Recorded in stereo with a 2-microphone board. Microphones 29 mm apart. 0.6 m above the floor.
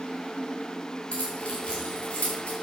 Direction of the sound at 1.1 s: 35° left (ahead or behind).